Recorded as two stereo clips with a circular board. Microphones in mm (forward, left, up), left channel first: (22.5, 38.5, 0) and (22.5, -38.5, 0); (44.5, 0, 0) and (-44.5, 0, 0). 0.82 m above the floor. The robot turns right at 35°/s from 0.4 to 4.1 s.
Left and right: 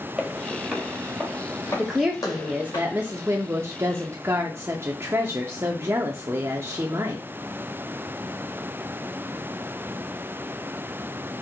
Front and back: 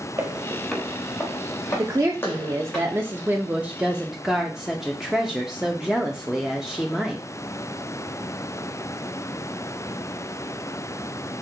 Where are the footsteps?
165° right, 0.9 m; by 2.8 s 80° left, 2 m.